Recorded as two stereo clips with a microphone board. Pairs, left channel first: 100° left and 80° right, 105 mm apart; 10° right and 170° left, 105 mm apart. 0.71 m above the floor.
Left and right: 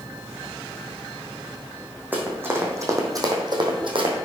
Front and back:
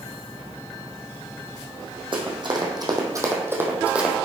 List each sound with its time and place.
2.1 s running footsteps: 150° right, 2.5 m; by 4.2 s 105° right, 2.0 m